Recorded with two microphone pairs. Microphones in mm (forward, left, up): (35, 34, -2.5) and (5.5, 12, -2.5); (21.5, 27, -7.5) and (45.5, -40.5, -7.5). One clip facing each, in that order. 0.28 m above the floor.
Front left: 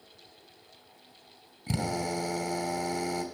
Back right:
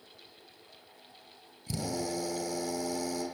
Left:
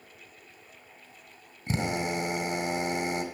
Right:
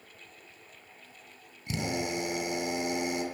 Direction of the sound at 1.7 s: 60° left.